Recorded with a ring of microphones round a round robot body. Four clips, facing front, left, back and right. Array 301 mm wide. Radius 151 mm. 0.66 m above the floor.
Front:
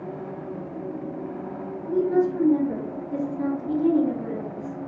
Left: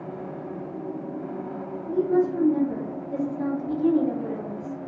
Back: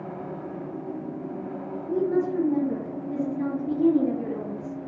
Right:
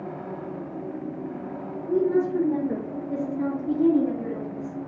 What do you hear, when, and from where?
1.9 s a woman speaking: 95° right, 1.8 m; by 4.7 s 155° right, 1.8 m